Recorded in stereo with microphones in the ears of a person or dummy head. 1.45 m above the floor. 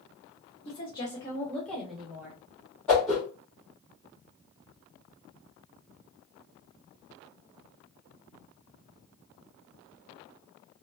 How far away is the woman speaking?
About 1.0 m.